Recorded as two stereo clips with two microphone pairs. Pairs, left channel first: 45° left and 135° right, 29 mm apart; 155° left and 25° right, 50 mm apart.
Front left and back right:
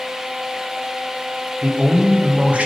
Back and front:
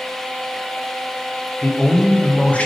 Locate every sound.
1.6 s a man speaking: 145° right, 0.5 m